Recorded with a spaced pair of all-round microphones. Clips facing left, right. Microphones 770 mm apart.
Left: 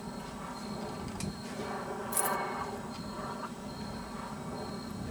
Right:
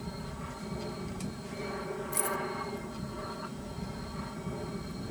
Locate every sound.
0.0 s an aircraft: 55° right (ahead or behind)
2.1 s keys jangling: 50° left (ahead or behind)